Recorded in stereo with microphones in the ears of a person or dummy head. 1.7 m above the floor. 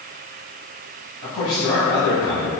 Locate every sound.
1.2 s a man speaking: 50° left (ahead or behind), 1.3 m